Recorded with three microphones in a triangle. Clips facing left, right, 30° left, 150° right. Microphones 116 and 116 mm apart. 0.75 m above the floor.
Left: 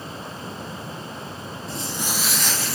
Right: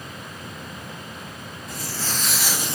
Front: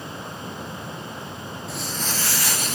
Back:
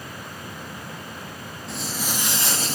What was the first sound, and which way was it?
Footsteps, 115° left.